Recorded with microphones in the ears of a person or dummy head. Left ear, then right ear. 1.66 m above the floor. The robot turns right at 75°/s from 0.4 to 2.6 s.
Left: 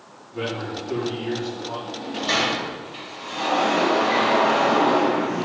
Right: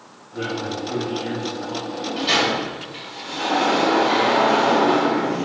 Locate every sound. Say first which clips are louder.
0.3 s a man speaking: right 2 dB; 145° left, 4 m; by 1.8 s 110° right, 4 m
1.9 s a sliding door: right 3 dB; 65° right, 4.5 m; by 5.5 s 10° right, 4.5 m